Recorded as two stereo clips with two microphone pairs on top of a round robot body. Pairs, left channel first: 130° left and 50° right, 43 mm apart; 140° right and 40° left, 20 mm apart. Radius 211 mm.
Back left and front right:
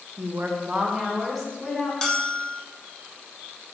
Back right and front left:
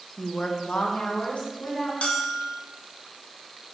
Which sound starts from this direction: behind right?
A bell, at 2.0 s.